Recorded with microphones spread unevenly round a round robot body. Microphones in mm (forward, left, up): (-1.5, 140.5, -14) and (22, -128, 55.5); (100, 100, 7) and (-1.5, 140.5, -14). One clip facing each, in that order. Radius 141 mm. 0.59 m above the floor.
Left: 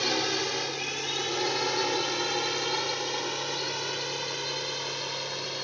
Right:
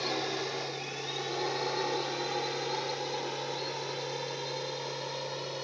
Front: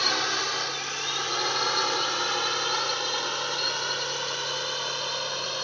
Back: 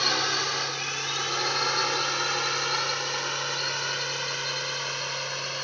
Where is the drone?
70° left; by 5.7 s 50° left.